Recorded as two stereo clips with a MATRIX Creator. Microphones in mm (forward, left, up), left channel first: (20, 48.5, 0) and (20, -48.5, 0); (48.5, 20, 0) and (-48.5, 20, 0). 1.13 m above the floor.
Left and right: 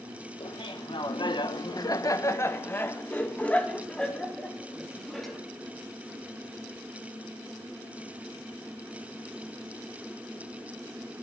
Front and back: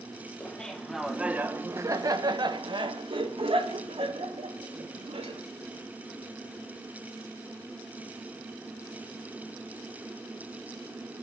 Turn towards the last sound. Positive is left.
turn(degrees=180)